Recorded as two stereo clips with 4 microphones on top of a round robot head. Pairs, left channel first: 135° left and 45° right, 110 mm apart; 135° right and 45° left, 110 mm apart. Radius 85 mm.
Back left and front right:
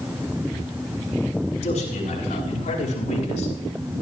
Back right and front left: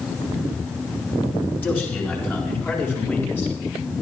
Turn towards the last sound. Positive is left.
turn(degrees=155)